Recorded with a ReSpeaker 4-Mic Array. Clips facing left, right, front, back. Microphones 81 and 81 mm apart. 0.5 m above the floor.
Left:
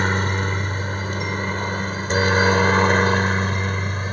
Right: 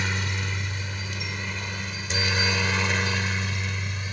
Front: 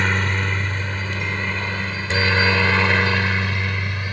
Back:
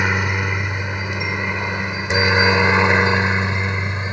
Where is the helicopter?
105° left; by 4.1 s 120° left.